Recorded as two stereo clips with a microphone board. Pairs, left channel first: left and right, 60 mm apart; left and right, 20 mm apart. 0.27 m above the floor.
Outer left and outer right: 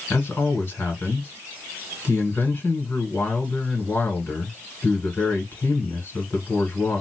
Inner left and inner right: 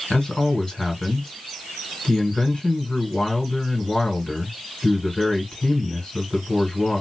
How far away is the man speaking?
About 2 m.